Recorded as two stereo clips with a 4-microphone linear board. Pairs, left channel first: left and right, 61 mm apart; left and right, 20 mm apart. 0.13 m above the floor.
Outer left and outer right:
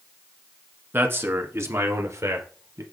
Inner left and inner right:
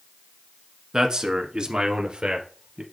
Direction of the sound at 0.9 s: 35° right (ahead or behind).